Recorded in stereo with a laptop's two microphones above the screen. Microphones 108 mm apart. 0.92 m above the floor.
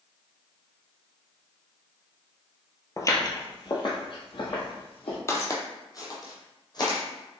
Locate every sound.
3.0 s footsteps: 30° left (ahead or behind), 1.0 m; by 5.2 s 60° left (ahead or behind), 1.9 m
5.3 s footsteps: 25° left (ahead or behind), 1.0 m; by 7.0 s 40° left (ahead or behind), 1.5 m